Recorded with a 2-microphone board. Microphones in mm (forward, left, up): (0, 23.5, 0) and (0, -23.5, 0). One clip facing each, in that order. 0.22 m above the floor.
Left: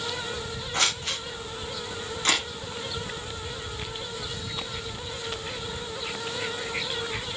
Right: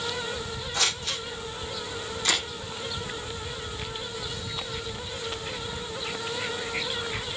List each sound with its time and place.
0.7 s scissors: 40° left (ahead or behind), 7 m
2.2 s a camera shutter: 45° left (ahead or behind), 8.5 m